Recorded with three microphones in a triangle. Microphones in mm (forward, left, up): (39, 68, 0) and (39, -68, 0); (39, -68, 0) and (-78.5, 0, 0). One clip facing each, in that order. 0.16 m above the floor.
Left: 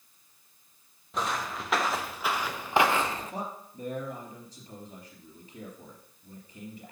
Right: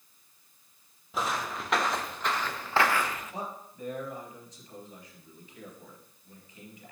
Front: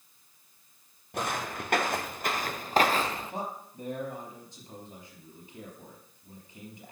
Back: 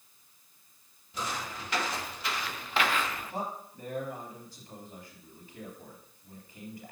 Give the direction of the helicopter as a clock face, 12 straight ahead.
No helicopter in this recording.